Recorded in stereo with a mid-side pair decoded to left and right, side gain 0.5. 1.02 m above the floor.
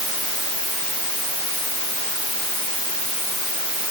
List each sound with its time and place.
Only background noise.